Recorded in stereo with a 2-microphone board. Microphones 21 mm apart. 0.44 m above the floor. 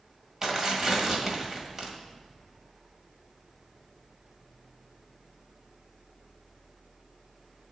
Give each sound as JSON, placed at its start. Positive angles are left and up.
{"t": 0.4, "sound": "tearing paper", "side_deg": -20, "distance_m": 1.7}